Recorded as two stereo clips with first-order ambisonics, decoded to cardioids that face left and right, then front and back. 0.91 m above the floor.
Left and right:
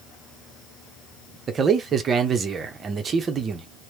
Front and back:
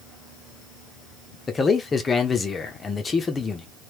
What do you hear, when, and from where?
1.5 s a man speaking: 50° right, 0.7 m